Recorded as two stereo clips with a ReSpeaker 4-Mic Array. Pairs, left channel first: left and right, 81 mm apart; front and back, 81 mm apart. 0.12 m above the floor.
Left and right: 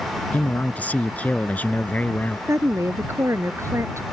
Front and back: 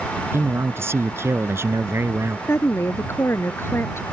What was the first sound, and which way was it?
A man speaking, 150° left.